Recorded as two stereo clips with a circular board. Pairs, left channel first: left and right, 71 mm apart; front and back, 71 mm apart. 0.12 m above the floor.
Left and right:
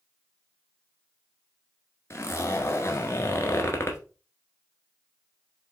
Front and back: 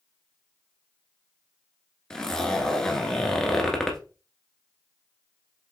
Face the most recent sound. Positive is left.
turn(degrees=75)